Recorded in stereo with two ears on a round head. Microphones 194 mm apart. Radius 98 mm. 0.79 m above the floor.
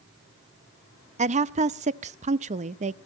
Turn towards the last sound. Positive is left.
turn(degrees=-35)  # may be behind; listen again after turning